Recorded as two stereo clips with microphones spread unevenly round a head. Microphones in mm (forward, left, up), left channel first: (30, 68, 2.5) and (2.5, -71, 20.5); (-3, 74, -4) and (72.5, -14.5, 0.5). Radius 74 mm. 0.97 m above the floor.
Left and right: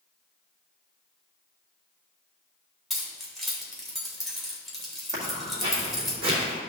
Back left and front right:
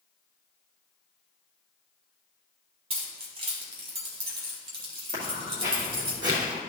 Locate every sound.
2.9 s keys jangling: 10° right, 2 m
5.1 s footsteps: 40° right, 3 m; by 6.6 s 55° right, 3 m